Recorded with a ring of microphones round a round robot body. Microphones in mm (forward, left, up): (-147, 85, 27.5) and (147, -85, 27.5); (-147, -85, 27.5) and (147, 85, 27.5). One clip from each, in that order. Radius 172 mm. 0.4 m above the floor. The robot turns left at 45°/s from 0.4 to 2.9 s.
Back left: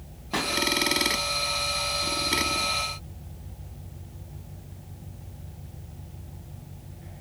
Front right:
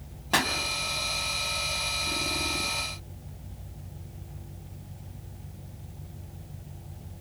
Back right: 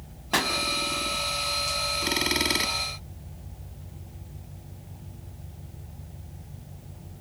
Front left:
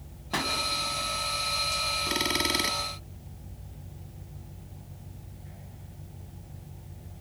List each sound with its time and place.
0.3 s a pop: 80° right, 3 m; by 0.5 s 85° right, 3 m